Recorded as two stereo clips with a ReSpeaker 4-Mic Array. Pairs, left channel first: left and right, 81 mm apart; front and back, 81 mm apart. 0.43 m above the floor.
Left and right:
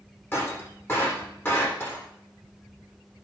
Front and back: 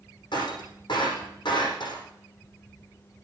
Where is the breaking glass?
25° left, 7.5 m.